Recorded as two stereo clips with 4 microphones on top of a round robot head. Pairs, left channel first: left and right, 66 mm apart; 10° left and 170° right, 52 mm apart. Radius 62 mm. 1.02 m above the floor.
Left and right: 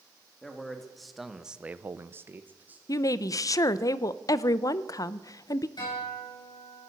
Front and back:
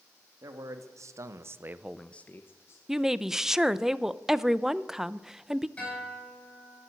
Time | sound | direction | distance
0.4 | a man speaking | 175° left | 2 m
2.9 | a woman speaking | 110° left | 0.6 m
5.8 | a guitar | 75° left | 8.5 m